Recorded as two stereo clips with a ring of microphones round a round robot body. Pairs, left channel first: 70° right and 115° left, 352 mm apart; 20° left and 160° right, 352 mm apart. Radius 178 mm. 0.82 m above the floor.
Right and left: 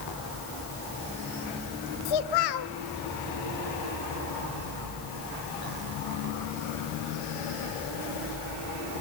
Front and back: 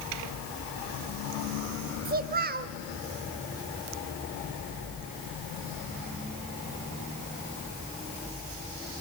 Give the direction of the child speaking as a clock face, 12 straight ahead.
3 o'clock.